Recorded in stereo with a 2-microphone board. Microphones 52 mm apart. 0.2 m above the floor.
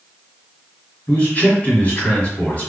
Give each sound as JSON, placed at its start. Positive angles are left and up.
{"t": 1.1, "sound": "a man speaking", "side_deg": 30, "distance_m": 1.7}